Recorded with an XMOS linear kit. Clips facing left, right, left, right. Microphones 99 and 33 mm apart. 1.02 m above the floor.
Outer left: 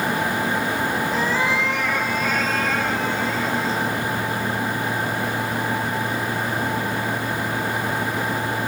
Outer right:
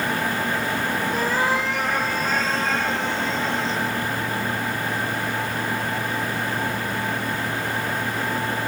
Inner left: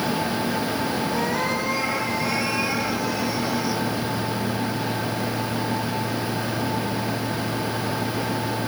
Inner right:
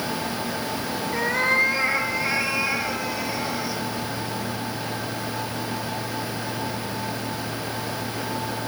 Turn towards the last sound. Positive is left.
turn(degrees=-25)  # may be behind; listen again after turning